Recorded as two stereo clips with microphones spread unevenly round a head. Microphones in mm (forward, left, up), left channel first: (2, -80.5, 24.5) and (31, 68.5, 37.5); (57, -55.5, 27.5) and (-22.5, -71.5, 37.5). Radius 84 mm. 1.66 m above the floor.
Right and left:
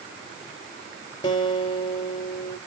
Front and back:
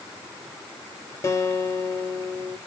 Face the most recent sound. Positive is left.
turn(degrees=-40)